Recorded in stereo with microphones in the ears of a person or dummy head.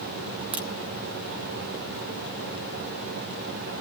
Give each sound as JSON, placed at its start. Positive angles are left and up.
{"t": 0.5, "sound": "a crack", "side_deg": -5, "distance_m": 1.1}